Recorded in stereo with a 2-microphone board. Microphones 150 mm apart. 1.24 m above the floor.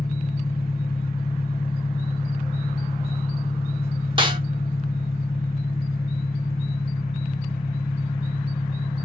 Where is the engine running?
70° left (ahead or behind), 1.5 m.